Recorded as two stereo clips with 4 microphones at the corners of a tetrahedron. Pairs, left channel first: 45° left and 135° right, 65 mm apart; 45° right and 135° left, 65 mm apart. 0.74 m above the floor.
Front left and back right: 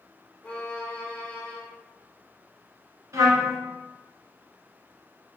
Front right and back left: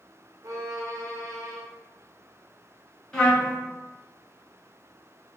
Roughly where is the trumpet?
Behind right.